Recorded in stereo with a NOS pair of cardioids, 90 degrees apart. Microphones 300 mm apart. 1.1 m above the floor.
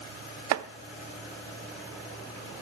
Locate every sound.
0.5 s chopping: 60° right, 0.5 m